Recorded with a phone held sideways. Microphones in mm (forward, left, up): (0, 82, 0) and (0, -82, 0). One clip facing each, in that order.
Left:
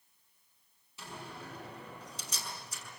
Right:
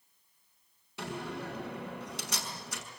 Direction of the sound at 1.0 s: 90° right.